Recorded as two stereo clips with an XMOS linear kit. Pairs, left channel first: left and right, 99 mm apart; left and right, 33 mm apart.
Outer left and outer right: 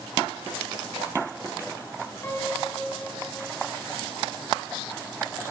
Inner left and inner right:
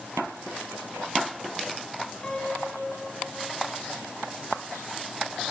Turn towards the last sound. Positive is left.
turn(degrees=25)  # may be behind; listen again after turning